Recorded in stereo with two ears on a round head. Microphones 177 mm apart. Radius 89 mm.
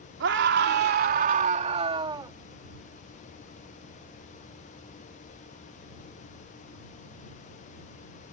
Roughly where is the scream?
Right.